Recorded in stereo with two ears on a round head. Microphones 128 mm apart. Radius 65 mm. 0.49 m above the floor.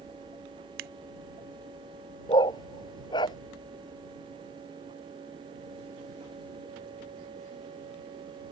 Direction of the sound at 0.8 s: 75° right (ahead or behind).